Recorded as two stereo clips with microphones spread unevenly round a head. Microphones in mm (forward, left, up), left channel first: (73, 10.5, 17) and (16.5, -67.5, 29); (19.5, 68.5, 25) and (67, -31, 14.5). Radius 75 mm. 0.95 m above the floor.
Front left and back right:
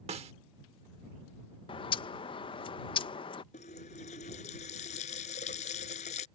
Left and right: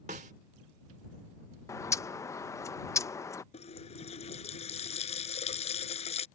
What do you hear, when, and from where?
0.1 s a snare drum: 115° right
1.7 s a bird: 50° left
3.5 s a running tap: 85° left